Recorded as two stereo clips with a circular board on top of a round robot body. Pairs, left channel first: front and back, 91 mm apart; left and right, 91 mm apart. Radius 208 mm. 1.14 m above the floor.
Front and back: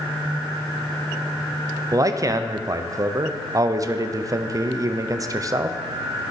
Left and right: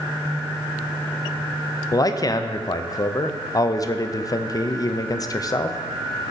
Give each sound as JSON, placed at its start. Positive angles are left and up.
{"t": 1.9, "sound": "a man speaking", "azimuth_deg": 135, "distance_m": 0.6}